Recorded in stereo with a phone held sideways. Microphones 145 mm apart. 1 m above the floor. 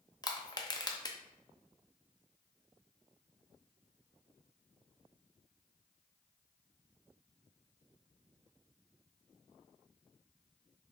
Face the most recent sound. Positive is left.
turn(degrees=25)  # may be behind; listen again after turning